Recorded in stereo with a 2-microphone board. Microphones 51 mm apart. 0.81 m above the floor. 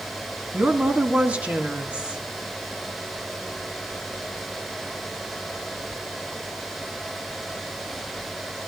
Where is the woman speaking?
25° right (ahead or behind), 1.3 m.